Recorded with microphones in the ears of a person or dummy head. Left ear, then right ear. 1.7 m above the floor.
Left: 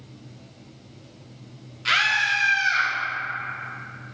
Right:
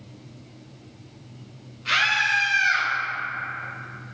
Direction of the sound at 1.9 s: 35° left (ahead or behind).